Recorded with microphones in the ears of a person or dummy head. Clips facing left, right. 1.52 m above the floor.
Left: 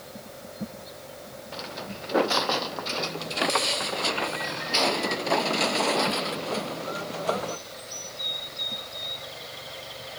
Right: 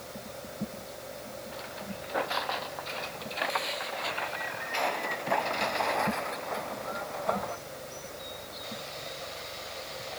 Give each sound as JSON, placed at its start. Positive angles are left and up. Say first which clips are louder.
{"t": 1.5, "sound": "footsteps", "louder": "left 3 dB", "side_deg": 55}